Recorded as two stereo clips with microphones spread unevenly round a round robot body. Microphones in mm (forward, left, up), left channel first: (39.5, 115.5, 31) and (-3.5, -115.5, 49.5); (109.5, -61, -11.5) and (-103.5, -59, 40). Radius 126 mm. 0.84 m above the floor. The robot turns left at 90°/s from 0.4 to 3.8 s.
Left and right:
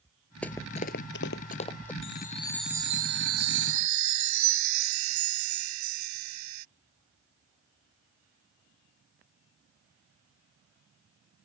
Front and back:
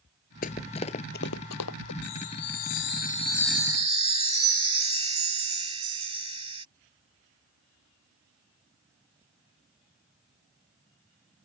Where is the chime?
45° left; by 6.7 s 115° right.